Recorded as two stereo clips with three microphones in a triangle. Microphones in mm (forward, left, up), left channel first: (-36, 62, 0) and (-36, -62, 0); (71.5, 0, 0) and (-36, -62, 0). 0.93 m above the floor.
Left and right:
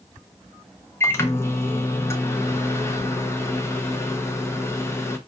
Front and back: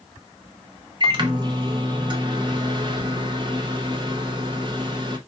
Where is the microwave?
160° left, 0.7 m.